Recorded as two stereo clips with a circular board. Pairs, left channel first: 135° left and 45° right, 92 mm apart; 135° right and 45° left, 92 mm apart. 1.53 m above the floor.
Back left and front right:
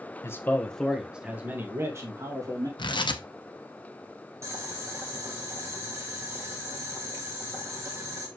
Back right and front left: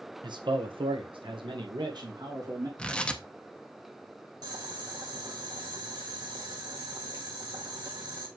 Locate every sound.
0.2 s a man speaking: 75° left, 1.3 m; by 2.7 s 5° left, 2.5 m
2.8 s tearing paper: 150° left, 0.8 m
4.4 s boiling: 10° left, 2 m